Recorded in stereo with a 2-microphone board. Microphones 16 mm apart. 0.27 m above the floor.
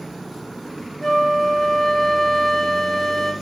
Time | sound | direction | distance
1.0 | a flute | 10° left (ahead or behind) | 1.3 m